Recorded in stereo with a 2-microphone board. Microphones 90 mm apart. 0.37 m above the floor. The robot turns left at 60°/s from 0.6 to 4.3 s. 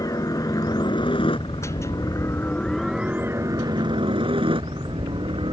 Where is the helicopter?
40° left (ahead or behind); by 5.5 s 75° right (ahead or behind).